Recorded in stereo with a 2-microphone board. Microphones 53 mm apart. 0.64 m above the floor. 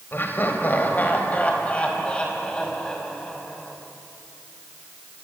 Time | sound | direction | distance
0.1 | laughter | 40° left (ahead or behind) | 3.5 m